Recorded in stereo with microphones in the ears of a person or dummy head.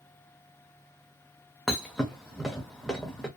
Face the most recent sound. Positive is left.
turn(degrees=5)  # may be behind; listen again after turning